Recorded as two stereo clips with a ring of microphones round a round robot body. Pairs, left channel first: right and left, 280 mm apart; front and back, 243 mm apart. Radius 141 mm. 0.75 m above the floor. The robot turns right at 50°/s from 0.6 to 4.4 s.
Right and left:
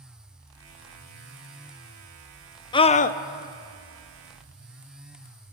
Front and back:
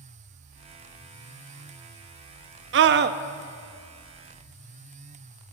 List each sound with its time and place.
2.7 s a scream: 160° right, 0.5 m; by 3.2 s 140° right, 0.5 m